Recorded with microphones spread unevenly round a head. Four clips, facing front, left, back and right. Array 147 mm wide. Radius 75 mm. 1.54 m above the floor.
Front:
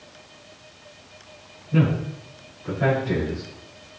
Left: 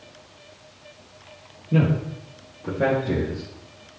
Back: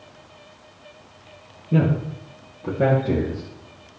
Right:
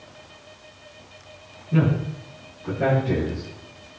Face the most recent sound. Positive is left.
turn(degrees=160)